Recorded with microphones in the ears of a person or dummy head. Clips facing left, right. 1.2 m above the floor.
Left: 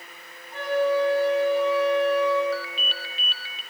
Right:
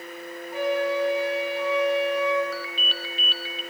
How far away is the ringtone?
About 1.2 m.